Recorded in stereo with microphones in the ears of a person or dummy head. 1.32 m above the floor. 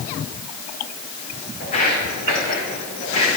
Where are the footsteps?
45° left (ahead or behind), 4 m; by 3.4 s 35° left (ahead or behind), 4.5 m.